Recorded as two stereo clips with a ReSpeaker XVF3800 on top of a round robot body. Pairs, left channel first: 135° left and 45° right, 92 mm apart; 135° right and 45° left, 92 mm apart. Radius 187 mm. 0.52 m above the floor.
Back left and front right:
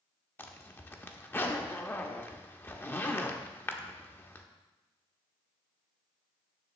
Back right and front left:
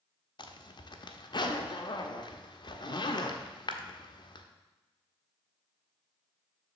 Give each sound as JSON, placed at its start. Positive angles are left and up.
{"t": 0.4, "sound": "a zipper", "azimuth_deg": -160, "distance_m": 1.1}